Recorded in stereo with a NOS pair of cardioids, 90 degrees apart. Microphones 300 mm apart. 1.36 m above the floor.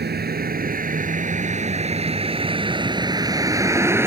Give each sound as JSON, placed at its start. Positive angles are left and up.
{"t": 0.0, "sound": "a vehicle", "azimuth_deg": -35}